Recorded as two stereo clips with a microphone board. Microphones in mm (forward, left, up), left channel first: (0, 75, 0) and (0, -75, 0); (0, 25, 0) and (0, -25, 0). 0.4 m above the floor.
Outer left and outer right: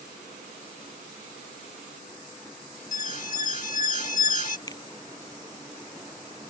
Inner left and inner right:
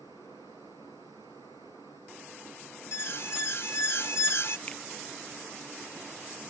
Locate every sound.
2.9 s an alarm: 55° left (ahead or behind)
4.7 s a finger snap: 25° left (ahead or behind)